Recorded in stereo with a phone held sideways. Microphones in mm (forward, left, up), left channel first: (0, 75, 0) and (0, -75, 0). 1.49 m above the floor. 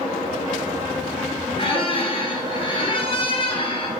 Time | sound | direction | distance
1.6 | a squeak | 35° left (ahead or behind) | 0.6 m